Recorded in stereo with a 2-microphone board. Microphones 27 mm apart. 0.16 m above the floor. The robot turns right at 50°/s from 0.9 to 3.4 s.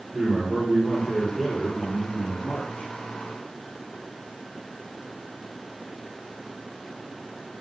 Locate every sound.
0.1 s a man speaking: 40° right, 7.5 m; by 2.9 s 55° left, 7.5 m